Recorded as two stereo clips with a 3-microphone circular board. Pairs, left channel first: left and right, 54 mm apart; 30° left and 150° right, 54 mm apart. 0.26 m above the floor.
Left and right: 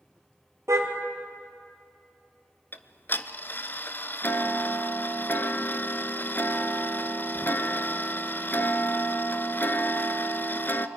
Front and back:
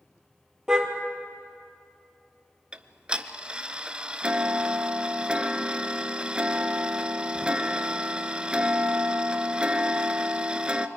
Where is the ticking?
140° left, 0.7 m.